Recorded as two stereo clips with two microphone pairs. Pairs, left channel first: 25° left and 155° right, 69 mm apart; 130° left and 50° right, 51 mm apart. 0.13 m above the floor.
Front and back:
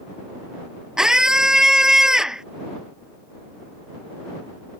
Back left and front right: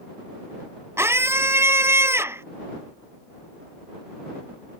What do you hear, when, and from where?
1.0 s a scream: 70° right